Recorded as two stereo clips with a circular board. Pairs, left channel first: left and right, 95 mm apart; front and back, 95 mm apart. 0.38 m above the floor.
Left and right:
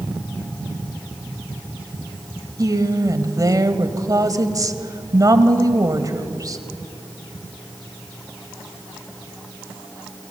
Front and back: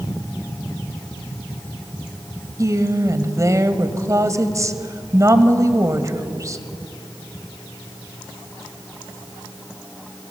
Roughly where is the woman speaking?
Behind right.